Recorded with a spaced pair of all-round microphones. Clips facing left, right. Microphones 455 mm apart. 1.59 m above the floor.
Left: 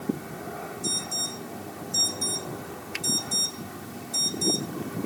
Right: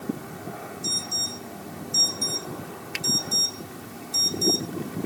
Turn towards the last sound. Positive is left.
turn(degrees=70)  # may be behind; listen again after turning